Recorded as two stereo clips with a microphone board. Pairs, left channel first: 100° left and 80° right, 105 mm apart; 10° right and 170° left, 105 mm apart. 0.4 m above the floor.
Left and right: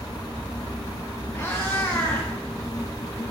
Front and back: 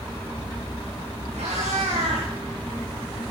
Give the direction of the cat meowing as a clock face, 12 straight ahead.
6 o'clock.